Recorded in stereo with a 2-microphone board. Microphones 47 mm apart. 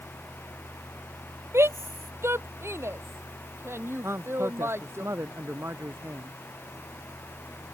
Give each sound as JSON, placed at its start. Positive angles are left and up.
{"t": 1.5, "sound": "a shout", "side_deg": -70}
{"t": 4.0, "sound": "a man speaking", "side_deg": -70}